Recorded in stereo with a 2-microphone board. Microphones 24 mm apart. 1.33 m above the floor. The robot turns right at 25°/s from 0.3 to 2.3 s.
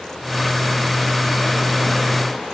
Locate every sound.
Only background noise.